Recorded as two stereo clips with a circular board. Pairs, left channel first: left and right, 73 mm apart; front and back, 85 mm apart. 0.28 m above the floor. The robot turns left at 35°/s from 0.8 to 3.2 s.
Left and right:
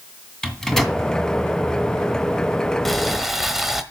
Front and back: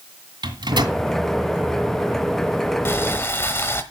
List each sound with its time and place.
0.4 s a microwave: 175° left, 1.8 m; by 1.0 s 165° left, 1.8 m
2.9 s boiling: 5° left, 1.2 m; by 3.8 s 10° right, 1.2 m